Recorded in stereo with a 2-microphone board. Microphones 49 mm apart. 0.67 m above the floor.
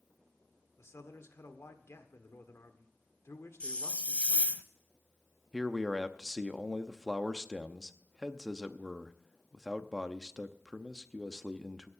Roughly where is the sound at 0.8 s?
Left.